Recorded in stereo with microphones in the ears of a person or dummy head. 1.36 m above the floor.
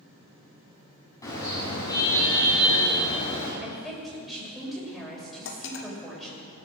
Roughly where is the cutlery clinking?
Left.